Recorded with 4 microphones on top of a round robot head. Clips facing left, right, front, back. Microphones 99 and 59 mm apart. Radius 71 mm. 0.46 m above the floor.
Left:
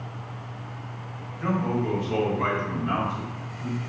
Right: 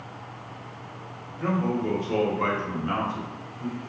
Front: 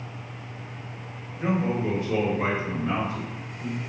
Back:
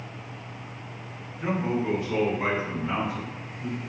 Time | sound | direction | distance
1.4 | a man speaking | 45° right | 1.5 m